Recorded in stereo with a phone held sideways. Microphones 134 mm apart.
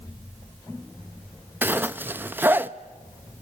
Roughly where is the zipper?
Centre.